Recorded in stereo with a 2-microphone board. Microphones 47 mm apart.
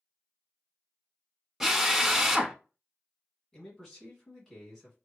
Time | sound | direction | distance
1.6 | a drill | 10° right (ahead or behind) | 0.6 m
3.5 | a man speaking | 5° left (ahead or behind) | 1.5 m